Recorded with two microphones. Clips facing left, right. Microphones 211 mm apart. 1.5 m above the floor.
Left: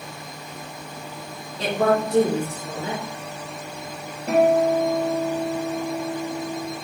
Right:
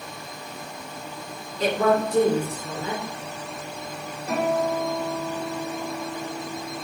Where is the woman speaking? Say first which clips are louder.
Even; 80° left, 1.9 m.